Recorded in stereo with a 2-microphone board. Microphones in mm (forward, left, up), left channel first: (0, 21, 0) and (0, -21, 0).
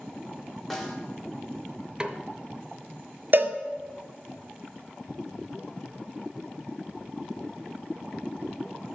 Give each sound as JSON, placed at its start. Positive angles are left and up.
{"t": 0.7, "sound": "a snare drum", "side_deg": 5, "distance_m": 1.3}
{"t": 2.0, "sound": "a snare drum", "side_deg": -20, "distance_m": 0.6}
{"t": 3.3, "sound": "a cowbell", "side_deg": -50, "distance_m": 0.7}